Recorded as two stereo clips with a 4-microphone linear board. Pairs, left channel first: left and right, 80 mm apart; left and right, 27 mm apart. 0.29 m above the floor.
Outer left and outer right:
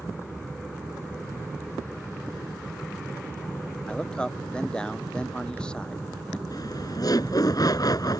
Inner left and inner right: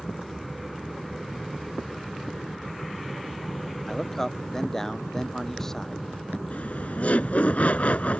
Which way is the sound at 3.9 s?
10° left (ahead or behind).